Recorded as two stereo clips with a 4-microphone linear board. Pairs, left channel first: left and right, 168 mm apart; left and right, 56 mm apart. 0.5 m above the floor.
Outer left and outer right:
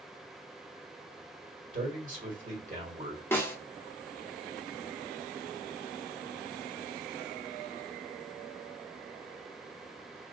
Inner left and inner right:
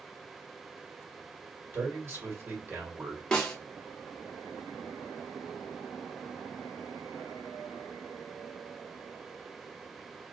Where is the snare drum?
15° left (ahead or behind), 1.0 m.